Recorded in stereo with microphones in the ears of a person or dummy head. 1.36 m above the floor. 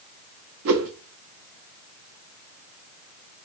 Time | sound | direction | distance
0.7 | a whoosh | 55° right (ahead or behind) | 0.6 m